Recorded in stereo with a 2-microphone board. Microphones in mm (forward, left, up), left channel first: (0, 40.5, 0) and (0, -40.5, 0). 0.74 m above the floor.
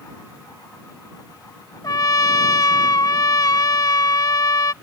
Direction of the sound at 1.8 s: 55° left (ahead or behind).